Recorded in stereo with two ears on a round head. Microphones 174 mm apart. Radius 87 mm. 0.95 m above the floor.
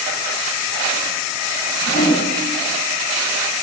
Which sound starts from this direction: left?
A whoosh, at 1.8 s.